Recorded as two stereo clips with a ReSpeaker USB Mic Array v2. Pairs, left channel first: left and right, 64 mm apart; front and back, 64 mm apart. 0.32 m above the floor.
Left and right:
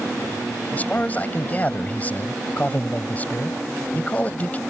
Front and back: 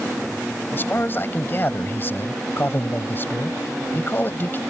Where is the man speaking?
35° left.